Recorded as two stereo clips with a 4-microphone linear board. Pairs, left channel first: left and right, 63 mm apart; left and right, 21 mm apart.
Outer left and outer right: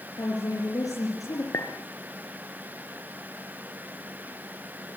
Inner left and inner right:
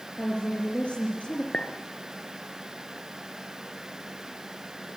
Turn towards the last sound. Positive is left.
turn(degrees=50)  # may be behind; listen again after turning